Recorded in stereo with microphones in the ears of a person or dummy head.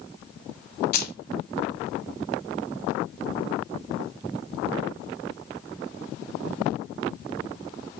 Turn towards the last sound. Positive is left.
turn(degrees=55)  # may be behind; listen again after turning